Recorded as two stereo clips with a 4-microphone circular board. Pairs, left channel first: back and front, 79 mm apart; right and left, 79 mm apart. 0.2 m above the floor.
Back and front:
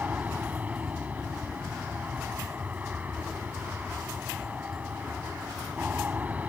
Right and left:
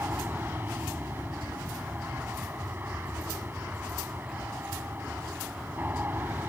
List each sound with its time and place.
0.0 s an aircraft: 50° left